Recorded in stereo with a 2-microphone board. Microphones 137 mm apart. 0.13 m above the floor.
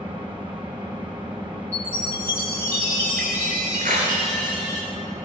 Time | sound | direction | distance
0.0 | an engine running | 35° right (ahead or behind) | 6 m
1.7 | a chime | 15° left (ahead or behind) | 8 m
3.8 | a clap | 75° right (ahead or behind) | 8.5 m